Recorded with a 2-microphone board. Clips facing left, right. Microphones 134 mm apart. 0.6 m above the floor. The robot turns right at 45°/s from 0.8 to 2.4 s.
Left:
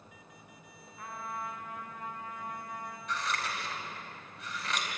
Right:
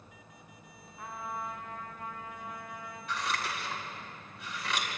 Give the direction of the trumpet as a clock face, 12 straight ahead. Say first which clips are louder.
Right 1 dB; 1 o'clock.